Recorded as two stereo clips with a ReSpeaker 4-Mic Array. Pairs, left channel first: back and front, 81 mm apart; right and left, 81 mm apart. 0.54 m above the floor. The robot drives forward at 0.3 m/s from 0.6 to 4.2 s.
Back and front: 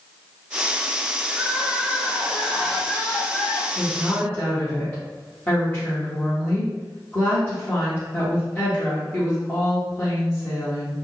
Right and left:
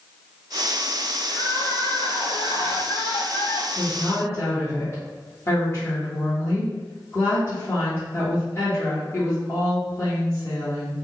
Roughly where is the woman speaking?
Right.